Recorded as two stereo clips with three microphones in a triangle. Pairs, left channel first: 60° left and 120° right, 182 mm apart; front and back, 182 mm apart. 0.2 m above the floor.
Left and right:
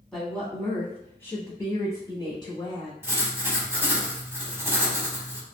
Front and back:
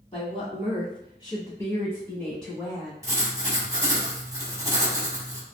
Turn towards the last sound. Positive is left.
turn(degrees=-165)